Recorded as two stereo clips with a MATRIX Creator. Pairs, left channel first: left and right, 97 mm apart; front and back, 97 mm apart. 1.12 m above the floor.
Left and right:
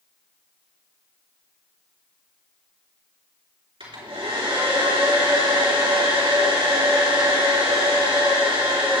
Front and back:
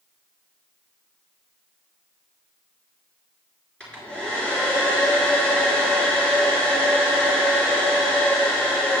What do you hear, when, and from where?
3.8 s a hair dryer: 80° right, 4 m